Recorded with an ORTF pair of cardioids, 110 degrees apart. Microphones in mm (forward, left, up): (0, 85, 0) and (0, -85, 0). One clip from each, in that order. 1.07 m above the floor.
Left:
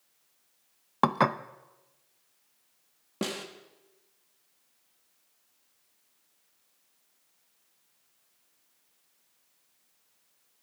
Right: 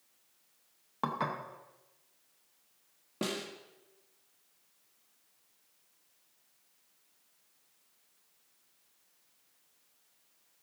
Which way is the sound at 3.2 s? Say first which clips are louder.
Left 2 dB; 20° left.